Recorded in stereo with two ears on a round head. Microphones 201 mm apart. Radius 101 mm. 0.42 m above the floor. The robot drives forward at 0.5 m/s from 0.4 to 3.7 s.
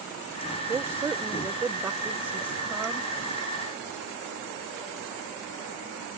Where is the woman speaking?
10° right (ahead or behind); by 3.1 s 5° right (ahead or behind).